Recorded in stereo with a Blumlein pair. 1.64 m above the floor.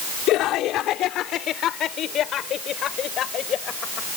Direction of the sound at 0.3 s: 35° left.